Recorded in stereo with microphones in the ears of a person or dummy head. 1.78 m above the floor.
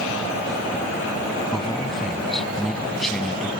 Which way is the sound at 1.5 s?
Centre (ahead or behind).